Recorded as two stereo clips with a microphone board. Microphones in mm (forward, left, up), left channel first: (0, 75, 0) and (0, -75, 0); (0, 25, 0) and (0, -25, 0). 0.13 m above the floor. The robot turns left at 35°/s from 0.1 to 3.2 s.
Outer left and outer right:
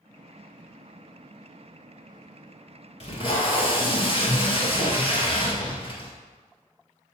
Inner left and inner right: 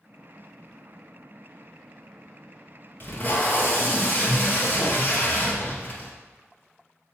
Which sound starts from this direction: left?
Tape being pulled, at 3.0 s.